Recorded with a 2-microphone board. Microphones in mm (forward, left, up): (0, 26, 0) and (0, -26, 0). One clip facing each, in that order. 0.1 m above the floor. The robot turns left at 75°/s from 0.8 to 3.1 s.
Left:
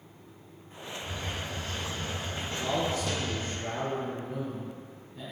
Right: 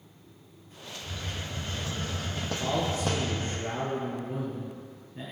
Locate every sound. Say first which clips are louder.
1.0 s a hiss: left 1 dB; 25° left, 0.6 m; by 3.6 s 130° right, 0.6 m
2.6 s a man speaking: even; 15° right, 1.5 m; by 5.3 s 50° right, 1.5 m